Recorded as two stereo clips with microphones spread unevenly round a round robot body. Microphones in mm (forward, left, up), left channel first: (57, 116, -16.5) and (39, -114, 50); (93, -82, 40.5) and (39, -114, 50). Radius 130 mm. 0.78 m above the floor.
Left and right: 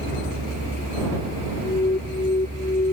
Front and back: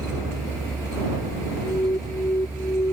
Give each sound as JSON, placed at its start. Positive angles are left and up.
{"t": 0.0, "sound": "a vehicle", "azimuth_deg": -150}
{"t": 1.6, "sound": "an alarm", "azimuth_deg": 25}